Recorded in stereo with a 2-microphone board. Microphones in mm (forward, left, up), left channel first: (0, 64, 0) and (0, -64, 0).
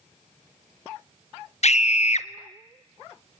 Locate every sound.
1.6 s a scream: 60° left (ahead or behind), 1.3 m